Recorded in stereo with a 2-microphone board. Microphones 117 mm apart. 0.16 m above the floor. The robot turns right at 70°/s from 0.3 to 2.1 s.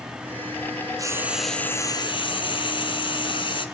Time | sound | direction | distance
1.0 | frying | 30° right | 1.0 m